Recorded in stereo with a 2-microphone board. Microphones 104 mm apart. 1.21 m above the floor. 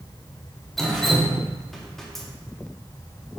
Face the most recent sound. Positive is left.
turn(degrees=0)  # may be behind; listen again after turning